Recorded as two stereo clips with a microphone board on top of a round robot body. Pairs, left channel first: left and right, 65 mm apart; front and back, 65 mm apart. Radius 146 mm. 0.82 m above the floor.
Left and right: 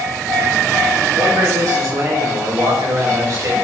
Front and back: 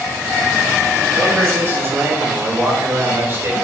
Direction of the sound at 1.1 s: 130° right.